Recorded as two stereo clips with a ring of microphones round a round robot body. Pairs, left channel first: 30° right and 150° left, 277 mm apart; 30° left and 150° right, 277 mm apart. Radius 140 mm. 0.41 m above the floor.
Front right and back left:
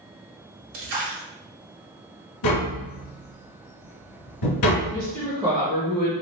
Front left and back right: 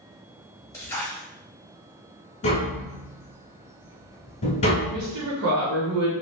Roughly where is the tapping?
Ahead right.